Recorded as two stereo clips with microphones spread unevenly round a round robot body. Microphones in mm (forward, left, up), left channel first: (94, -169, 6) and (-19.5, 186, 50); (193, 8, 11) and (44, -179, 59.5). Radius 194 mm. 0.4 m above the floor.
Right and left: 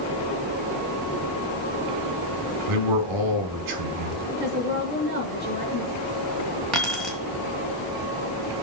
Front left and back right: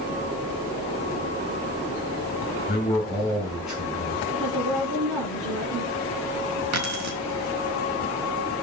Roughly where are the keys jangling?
Behind.